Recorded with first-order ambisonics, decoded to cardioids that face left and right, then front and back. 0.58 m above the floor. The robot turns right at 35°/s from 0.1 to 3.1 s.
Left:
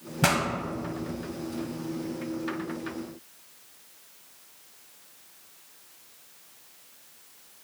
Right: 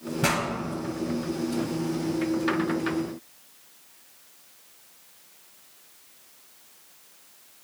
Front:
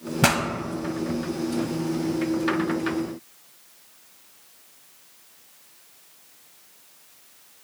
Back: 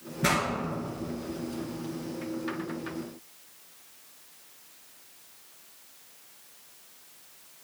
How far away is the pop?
About 1.4 m.